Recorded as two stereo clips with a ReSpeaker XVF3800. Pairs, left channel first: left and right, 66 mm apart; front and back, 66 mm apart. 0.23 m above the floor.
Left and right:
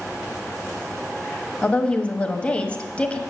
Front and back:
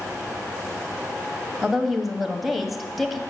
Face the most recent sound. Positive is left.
turn(degrees=90)